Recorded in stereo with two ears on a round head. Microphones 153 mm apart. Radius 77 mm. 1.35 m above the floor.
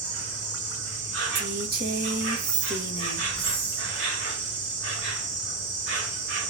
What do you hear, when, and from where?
0.0 s an insect: 80° right, 3 m
1.4 s a woman speaking: 60° right (ahead or behind), 1.7 m